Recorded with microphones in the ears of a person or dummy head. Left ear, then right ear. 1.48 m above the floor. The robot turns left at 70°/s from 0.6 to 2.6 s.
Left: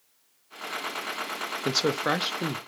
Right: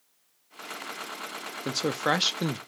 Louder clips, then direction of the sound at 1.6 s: Left 1 dB; 15° left.